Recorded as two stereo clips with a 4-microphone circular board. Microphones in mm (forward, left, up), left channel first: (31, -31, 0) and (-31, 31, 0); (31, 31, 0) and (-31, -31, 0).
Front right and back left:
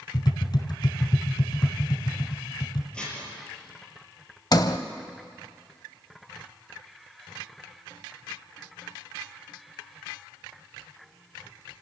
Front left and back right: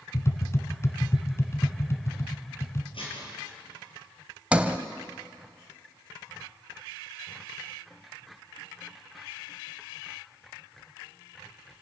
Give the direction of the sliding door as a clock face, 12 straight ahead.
2 o'clock.